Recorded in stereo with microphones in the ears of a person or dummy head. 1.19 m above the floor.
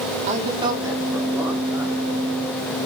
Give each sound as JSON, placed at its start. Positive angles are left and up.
{"t": 0.3, "sound": "a man speaking", "side_deg": -40, "distance_m": 0.7}